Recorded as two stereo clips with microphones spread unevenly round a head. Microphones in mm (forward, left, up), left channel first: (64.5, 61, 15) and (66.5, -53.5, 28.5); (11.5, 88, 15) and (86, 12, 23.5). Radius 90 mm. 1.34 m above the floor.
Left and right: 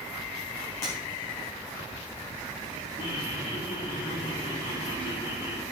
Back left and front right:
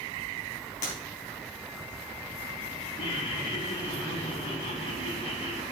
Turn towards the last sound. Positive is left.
turn(degrees=145)